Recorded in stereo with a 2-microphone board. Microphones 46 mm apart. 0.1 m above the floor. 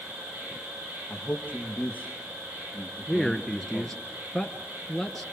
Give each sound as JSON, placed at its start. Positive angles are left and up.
{"t": 0.0, "sound": "an insect", "side_deg": -40, "distance_m": 7.0}
{"t": 1.1, "sound": "a man speaking", "side_deg": 35, "distance_m": 3.0}
{"t": 3.1, "sound": "a man speaking", "side_deg": 0, "distance_m": 1.5}